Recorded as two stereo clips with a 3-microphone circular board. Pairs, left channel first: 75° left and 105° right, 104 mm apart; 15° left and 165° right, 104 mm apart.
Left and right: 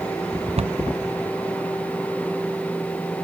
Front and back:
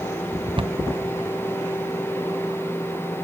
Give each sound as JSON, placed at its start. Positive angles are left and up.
{"t": 0.6, "sound": "a cupboard door", "azimuth_deg": -125}